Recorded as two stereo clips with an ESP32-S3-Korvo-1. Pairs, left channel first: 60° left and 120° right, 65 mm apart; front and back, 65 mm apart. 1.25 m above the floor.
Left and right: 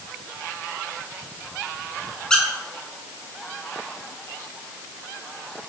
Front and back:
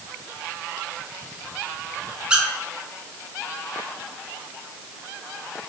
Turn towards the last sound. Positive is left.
turn(degrees=125)